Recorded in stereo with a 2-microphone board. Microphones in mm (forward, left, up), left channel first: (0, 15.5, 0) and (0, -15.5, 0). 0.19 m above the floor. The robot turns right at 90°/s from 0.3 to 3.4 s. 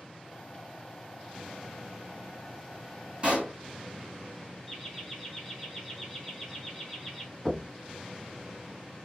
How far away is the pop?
About 2 m.